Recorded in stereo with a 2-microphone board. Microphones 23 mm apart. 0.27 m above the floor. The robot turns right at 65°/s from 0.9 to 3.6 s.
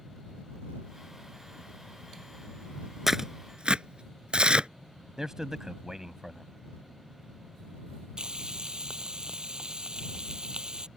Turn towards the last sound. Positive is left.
turn(degrees=-35)  # may be behind; listen again after turning